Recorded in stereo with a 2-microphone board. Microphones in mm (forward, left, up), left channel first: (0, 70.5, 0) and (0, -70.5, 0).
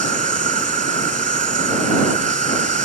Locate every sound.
0.0 s an insect: 65° right (ahead or behind)